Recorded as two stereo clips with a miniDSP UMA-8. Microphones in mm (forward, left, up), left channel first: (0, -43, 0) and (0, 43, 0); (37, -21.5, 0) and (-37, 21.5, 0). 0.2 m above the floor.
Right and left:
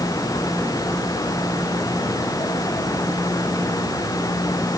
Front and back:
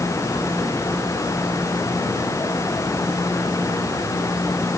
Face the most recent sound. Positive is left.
No sound to turn to.